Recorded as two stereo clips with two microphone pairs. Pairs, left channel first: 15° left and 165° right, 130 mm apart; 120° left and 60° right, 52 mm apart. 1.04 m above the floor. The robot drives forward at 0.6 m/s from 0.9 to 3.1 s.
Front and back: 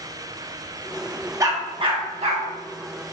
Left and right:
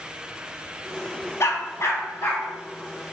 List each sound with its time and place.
1.4 s a dog barking: 135° left, 0.6 m; by 2.4 s 160° left, 1.1 m